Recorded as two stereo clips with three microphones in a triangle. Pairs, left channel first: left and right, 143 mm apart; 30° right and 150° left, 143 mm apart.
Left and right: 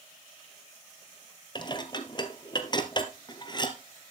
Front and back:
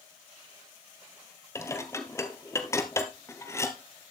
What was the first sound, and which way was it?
Dishes clattering, 35° left.